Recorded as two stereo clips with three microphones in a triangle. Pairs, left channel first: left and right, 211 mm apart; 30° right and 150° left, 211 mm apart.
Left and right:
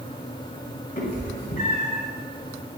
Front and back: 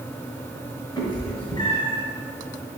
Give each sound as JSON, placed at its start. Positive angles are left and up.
{"t": 1.0, "sound": "a cat meowing", "azimuth_deg": 35, "distance_m": 1.0}